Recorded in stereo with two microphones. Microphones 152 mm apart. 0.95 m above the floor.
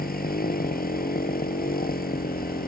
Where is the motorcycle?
80° left.